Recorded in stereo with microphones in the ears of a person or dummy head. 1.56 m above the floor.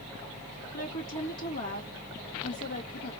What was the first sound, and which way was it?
A woman speaking, 70° left (ahead or behind).